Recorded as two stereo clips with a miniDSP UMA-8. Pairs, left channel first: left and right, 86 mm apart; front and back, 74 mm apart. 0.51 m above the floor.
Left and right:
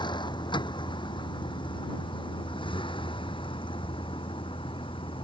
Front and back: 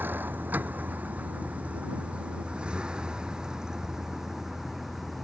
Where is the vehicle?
115° left; by 5.2 s 90° left.